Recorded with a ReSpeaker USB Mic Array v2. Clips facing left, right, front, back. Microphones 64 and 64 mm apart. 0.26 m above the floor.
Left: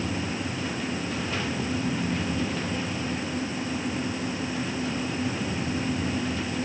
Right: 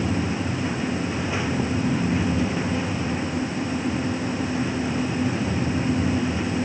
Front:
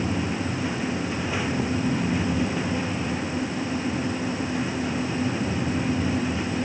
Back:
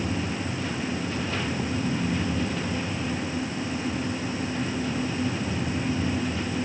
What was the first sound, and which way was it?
Only background noise.